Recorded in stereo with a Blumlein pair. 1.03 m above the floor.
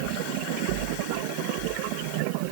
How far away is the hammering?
I don't hear hammering.